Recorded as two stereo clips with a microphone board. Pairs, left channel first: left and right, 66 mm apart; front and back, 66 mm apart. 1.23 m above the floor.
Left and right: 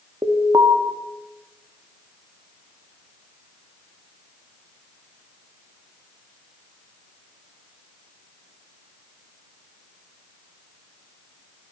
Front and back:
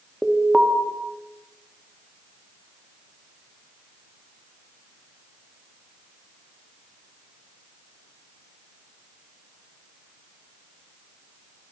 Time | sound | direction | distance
0.2 | an alarm | 100° right | 3 m